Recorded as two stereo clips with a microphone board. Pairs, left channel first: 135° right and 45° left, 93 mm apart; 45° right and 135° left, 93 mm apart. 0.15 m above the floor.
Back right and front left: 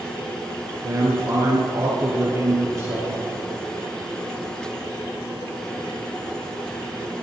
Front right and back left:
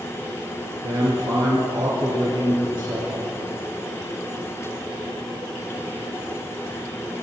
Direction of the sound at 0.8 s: 105° left.